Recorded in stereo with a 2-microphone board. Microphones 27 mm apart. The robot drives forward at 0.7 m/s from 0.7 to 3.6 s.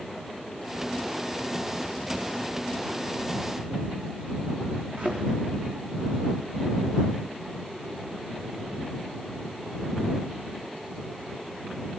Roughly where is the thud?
Right.